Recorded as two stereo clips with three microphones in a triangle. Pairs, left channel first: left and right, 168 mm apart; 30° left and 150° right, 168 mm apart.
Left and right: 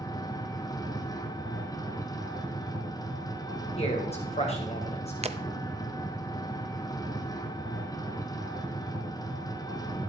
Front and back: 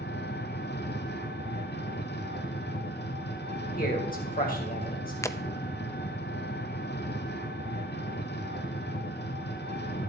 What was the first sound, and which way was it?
An engine running, 25° left.